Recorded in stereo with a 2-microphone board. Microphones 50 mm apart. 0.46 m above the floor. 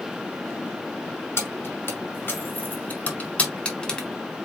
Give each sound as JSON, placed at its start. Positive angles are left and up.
{"t": 1.4, "sound": "keys jangling", "side_deg": 55, "distance_m": 2.0}